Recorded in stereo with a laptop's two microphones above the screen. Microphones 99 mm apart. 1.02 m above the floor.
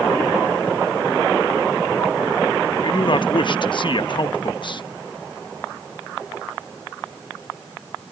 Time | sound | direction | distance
2.8 | a man speaking | 50° left (ahead or behind) | ?